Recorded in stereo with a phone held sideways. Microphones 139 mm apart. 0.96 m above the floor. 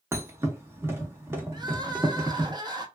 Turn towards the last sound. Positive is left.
turn(degrees=-30)  # may be behind; listen again after turning